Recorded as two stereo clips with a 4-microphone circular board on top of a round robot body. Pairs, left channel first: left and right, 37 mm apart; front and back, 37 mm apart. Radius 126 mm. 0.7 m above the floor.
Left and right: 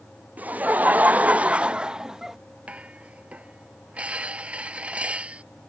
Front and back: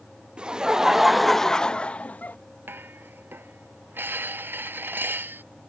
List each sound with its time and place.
0.4 s laughter: 120° right; by 2.4 s 15° right
2.7 s dishes clattering: 150° right